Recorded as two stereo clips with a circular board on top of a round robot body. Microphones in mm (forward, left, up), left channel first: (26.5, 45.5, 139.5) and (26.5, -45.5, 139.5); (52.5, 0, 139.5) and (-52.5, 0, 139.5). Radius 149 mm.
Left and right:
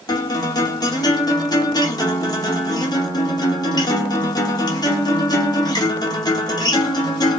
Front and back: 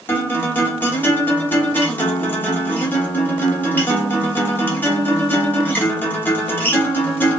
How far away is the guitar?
About 1.0 m.